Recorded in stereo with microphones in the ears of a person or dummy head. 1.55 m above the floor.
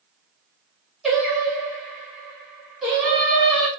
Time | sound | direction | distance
1.0 | singing | 5° right (ahead or behind) | 1.5 m